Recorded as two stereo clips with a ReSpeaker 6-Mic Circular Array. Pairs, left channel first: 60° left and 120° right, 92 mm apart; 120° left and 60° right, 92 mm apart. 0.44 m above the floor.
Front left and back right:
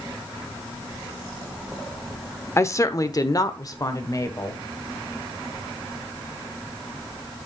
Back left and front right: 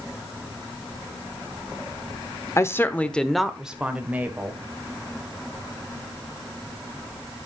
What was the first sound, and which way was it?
A woman speaking, 95° left.